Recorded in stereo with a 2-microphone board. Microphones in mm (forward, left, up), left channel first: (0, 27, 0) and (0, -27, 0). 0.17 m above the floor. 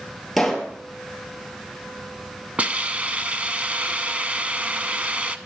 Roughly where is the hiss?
Right.